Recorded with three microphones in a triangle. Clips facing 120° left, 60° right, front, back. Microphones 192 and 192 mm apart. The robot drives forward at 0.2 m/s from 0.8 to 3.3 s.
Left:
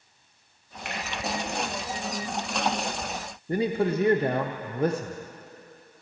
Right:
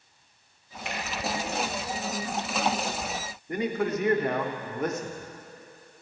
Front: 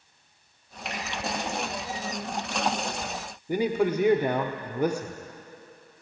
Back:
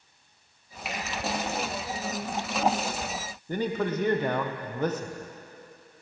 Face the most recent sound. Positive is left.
turn(degrees=75)